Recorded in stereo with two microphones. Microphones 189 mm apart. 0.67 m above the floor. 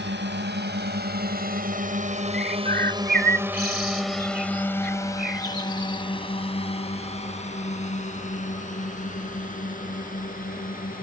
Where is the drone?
70° right (ahead or behind); by 11.0 s 45° left (ahead or behind).